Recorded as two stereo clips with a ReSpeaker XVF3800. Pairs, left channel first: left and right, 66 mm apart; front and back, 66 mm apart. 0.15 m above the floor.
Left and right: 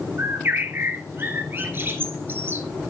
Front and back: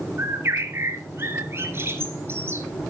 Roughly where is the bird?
Behind right.